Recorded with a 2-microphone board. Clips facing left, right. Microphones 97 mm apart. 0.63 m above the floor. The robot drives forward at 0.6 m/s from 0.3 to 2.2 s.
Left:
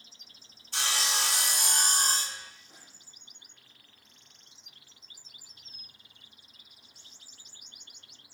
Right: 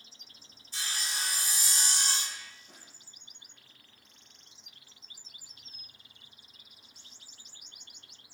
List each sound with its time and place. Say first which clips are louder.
0.7 s sawing: left 7 dB; 65° left (ahead or behind), 0.6 m; by 2.5 s 40° left (ahead or behind), 0.9 m
2.7 s a snare drum: even; 75° right (ahead or behind), 7 m